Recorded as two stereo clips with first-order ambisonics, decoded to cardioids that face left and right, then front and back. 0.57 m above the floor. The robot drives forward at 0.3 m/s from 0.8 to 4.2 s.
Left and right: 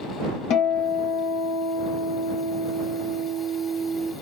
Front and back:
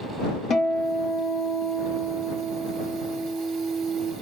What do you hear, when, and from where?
0.5 s a guitar: 60° left, 0.7 m; by 4.1 s 135° left, 0.9 m